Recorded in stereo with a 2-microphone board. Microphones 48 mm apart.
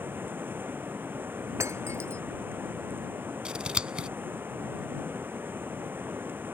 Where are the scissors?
20° right (ahead or behind).